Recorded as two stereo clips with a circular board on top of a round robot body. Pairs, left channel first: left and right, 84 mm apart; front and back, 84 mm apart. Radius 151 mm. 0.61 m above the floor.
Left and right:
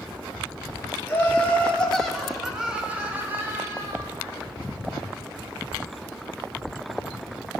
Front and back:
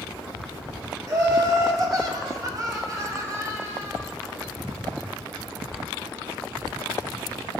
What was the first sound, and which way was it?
Laughter, 145° left.